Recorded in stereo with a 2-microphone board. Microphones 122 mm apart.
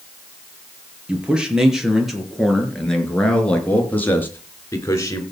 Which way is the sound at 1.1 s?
10° right (ahead or behind).